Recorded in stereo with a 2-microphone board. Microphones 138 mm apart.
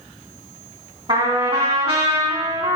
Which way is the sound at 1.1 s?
55° right (ahead or behind).